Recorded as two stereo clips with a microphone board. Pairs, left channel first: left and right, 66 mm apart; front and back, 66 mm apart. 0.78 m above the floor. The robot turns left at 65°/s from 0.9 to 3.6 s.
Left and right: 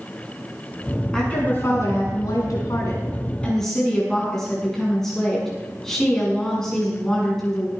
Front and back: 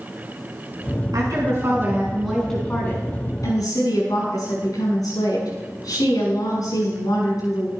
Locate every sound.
1.1 s a woman speaking: 170° left, 7 m; by 7.7 s 10° left, 7 m